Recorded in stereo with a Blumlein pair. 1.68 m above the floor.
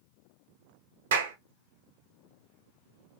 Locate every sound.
1.1 s a clap: 60° right, 0.9 m